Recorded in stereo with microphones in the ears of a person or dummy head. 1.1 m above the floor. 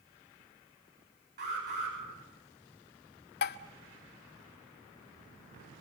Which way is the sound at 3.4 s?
55° left (ahead or behind).